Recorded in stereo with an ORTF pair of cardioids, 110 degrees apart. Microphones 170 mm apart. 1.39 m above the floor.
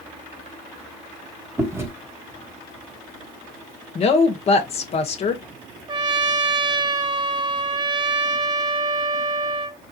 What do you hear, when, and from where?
1.6 s chewing: 15° right, 1.3 m
4.0 s a woman speaking: 40° left, 1.1 m
5.9 s a trumpet: 25° right, 0.7 m